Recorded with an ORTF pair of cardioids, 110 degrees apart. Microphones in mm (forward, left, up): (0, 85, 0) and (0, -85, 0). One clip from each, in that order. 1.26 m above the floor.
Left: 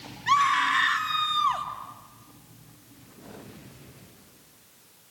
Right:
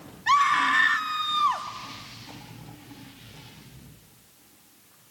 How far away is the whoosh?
I don't hear a whoosh.